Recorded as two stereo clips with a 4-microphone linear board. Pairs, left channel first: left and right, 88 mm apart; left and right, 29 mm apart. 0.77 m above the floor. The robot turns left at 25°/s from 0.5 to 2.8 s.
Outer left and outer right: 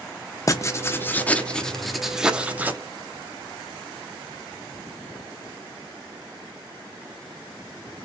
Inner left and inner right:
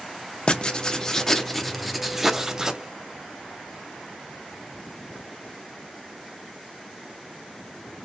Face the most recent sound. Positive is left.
turn(degrees=-25)